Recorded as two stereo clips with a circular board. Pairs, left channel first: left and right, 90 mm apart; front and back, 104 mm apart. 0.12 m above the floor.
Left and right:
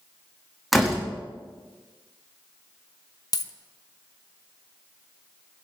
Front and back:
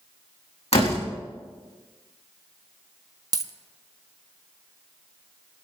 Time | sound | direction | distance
0.7 | a door slam | straight ahead | 4 m
3.3 | a dropped coin | 130° left | 0.8 m